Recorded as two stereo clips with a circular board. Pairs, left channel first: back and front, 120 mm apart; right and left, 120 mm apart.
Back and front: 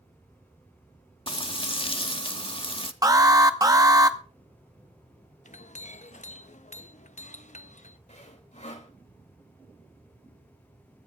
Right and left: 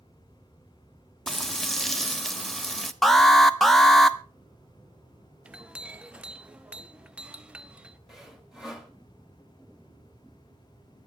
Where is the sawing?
175° left, 2 m.